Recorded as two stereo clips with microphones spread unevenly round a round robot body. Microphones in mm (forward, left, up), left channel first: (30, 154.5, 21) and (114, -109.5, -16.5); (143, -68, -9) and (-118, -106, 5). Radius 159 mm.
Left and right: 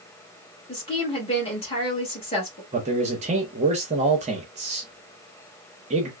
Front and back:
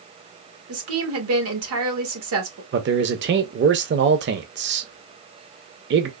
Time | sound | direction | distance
0.7 | a woman speaking | straight behind | 1.2 m
2.7 | a man speaking | 130° right | 0.6 m